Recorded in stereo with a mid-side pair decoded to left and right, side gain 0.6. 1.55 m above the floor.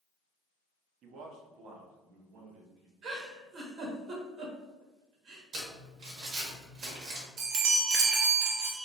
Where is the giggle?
60° right, 1.4 m.